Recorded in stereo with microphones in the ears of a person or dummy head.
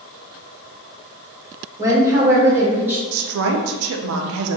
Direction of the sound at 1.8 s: 25° right (ahead or behind).